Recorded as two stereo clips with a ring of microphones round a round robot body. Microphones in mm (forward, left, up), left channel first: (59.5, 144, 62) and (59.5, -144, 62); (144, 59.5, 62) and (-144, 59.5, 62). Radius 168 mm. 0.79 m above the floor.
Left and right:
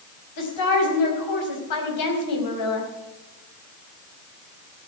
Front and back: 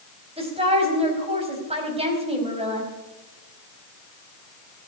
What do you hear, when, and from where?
0.4 s a woman speaking: 110° left, 4.5 m